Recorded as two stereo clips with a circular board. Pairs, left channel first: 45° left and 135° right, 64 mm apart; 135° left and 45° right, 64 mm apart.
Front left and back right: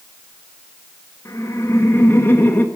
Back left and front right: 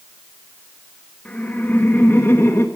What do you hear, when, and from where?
1.2 s laughter: 70° left, 1.8 m; by 2.6 s 100° left, 1.6 m